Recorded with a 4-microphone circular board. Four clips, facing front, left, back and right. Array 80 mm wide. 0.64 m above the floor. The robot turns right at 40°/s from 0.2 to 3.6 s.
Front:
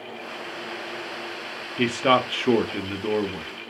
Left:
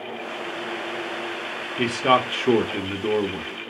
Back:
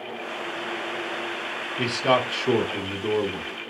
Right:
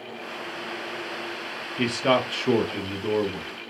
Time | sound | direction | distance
1.8 | a man speaking | 15° left | 1.0 m